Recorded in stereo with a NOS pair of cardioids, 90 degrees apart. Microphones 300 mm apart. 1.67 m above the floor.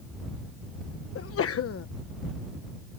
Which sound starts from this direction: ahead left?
A sneeze, at 1.1 s.